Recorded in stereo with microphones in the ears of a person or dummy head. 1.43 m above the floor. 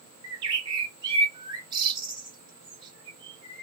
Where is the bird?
30° right (ahead or behind), 1.2 m.